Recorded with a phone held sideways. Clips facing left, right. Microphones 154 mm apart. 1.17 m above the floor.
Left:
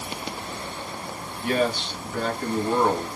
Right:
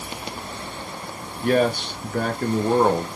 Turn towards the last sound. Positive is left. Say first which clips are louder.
# right 4 dB
turn(degrees=-50)  # may be behind; listen again after turning